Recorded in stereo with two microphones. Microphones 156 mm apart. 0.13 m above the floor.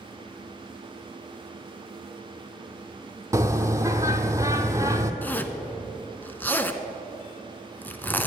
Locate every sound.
3.3 s a bird: 20° right (ahead or behind), 0.7 m
5.2 s a zipper: 10° left (ahead or behind), 0.6 m